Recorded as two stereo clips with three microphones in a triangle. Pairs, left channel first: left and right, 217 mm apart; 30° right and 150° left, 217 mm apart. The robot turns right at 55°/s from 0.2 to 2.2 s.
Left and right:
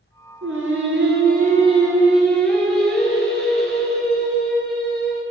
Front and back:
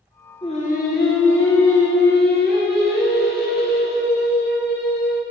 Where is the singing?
95° right, 1.2 m; by 5.2 s 5° left, 1.2 m.